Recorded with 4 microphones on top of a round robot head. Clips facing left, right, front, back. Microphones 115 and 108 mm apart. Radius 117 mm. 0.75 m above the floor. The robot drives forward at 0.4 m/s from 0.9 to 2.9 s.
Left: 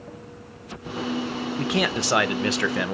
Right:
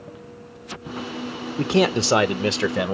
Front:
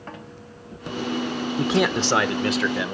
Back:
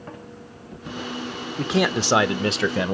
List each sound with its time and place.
1.6 s a man speaking: 75° right, 0.6 m; by 2.9 s 150° right, 0.7 m